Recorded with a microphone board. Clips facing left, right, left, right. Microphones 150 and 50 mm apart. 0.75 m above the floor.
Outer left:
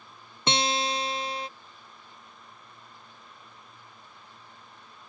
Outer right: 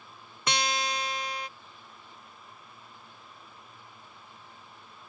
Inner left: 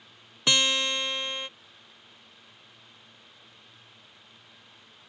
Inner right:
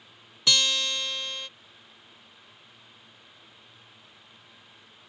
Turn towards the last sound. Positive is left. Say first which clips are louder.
# outer left 3 dB, inner left 1 dB
turn(degrees=25)  # may be behind; listen again after turning